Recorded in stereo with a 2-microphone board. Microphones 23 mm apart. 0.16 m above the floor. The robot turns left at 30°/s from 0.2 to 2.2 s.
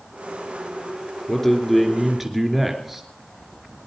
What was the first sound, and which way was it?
A man speaking, 15° left (ahead or behind).